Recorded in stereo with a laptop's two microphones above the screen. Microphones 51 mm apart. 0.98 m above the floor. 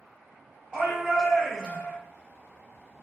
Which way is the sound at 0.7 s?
20° right (ahead or behind).